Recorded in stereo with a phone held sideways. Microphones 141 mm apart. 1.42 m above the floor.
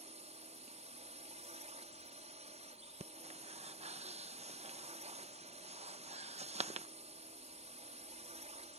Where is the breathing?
50° right (ahead or behind).